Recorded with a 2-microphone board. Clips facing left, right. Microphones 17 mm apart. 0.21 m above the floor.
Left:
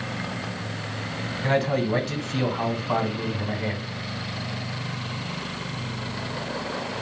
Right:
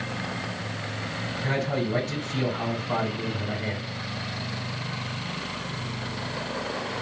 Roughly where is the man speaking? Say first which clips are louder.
Left 5 dB; left.